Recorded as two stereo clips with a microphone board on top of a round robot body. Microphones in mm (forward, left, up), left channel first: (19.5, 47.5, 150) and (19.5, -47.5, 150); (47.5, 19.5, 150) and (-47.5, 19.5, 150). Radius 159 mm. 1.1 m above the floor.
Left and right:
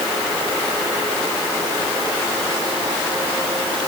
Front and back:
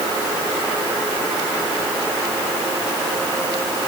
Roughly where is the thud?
No thud in this recording.